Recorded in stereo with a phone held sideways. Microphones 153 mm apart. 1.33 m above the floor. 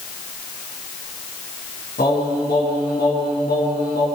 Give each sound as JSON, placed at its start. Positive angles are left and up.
{"t": 2.0, "sound": "singing", "side_deg": 85, "distance_m": 7.5}